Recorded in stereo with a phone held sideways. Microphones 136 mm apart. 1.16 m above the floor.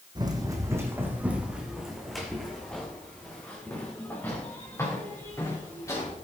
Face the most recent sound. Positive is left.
turn(degrees=25)  # may be behind; listen again after turning